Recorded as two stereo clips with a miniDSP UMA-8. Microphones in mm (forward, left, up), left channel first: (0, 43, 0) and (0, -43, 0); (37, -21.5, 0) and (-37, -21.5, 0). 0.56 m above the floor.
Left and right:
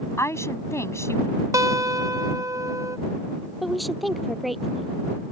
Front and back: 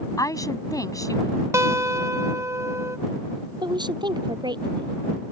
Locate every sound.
0.2 s a woman speaking: 35° left
1.5 s a guitar: 135° right
3.6 s a woman speaking: straight behind